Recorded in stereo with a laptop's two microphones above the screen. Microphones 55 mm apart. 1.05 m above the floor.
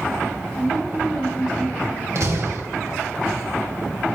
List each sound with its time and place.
0.5 s a woman speaking: 15° right (ahead or behind), 7.5 m
2.1 s a door slam: 60° right (ahead or behind), 4 m